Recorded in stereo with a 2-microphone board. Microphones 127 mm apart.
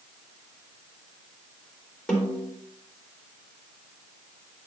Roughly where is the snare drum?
Centre.